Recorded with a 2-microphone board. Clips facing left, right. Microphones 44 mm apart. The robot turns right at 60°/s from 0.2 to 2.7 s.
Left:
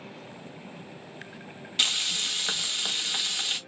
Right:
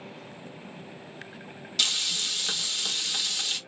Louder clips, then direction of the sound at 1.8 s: Left 1 dB; 60° left.